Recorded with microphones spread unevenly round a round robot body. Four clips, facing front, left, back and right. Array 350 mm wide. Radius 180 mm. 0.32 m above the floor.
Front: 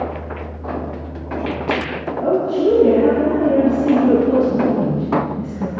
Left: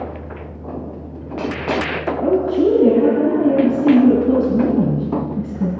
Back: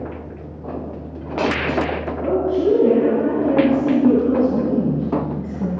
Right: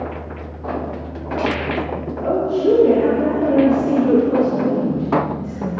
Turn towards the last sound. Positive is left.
turn(degrees=90)